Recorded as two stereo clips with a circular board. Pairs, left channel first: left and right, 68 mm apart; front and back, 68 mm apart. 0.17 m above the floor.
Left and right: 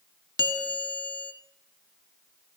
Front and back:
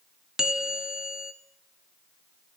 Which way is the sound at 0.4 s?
100° right.